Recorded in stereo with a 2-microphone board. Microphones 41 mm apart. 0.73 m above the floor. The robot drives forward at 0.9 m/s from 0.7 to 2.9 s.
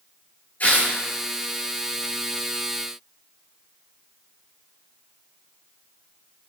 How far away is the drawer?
No drawer in this recording.